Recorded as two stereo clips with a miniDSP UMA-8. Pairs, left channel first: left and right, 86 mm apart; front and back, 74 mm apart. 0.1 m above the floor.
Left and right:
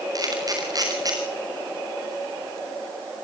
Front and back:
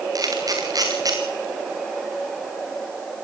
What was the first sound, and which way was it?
A camera shutter, 140° right.